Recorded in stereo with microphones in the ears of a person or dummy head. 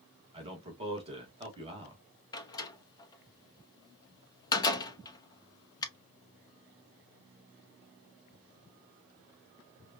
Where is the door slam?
20° left (ahead or behind), 0.9 m.